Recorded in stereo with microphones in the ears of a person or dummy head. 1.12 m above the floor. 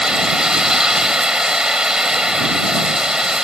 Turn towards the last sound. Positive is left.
turn(degrees=-5)  # may be behind; listen again after turning